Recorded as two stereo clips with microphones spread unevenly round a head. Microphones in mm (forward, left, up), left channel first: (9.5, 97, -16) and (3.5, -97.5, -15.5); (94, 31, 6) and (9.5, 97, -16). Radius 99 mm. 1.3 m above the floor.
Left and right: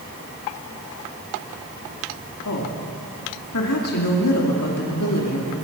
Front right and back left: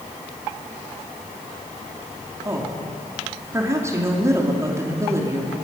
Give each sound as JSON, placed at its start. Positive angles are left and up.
{"t": 2.5, "sound": "a woman speaking", "azimuth_deg": 75, "distance_m": 2.5}